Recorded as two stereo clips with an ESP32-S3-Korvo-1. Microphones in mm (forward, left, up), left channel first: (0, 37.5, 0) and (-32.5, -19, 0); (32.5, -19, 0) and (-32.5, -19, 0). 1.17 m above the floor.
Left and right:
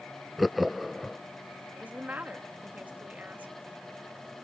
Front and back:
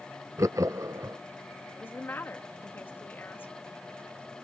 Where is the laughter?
150° left.